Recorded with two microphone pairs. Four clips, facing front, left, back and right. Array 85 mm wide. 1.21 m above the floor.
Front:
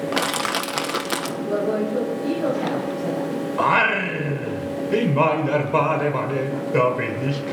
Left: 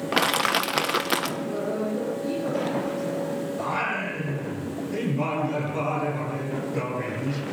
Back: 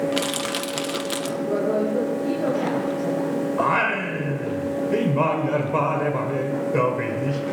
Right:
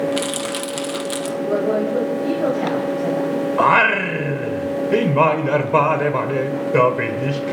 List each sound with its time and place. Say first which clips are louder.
0.1 s crushing: even, front 2 dB; 45° left, 1.0 m
1.4 s a woman speaking: right 9 dB, back 1 dB; 85° right, 5 m
3.6 s singing: right 16 dB, front 5 dB; 80° right, 2.0 m